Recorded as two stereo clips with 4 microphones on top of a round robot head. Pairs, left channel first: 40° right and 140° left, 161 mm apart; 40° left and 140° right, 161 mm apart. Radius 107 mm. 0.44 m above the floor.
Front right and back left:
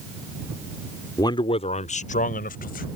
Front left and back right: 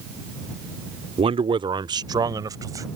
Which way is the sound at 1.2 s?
100° right.